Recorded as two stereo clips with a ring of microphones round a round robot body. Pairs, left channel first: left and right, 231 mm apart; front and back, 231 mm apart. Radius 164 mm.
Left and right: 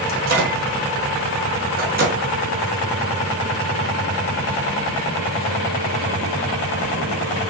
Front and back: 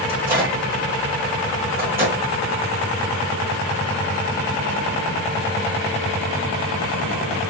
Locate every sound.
0.1 s a microwave: 105° right, 1.0 m